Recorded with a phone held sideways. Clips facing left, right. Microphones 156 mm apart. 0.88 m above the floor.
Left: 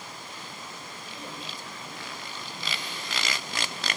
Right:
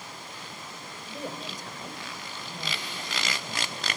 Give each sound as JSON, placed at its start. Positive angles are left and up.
{"t": 1.1, "sound": "a woman speaking", "side_deg": -40, "distance_m": 3.5}